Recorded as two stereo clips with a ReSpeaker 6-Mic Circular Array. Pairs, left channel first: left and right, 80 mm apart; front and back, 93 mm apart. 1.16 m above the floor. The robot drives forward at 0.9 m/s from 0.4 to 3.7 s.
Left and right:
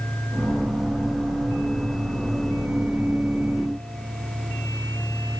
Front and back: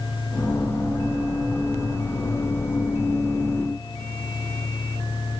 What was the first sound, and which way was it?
Only background noise.